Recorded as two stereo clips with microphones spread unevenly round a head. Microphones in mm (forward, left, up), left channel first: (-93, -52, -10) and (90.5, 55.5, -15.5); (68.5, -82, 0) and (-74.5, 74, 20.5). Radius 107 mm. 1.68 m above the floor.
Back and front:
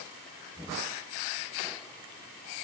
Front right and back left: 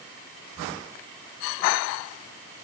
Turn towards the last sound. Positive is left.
No sound to turn to.